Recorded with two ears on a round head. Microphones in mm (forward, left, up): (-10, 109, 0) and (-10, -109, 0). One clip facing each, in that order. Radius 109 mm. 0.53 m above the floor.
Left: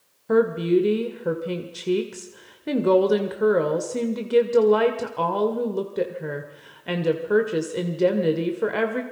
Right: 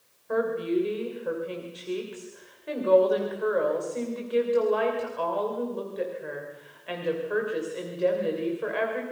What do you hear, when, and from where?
0.3 s a woman speaking: 60° left (ahead or behind), 2 m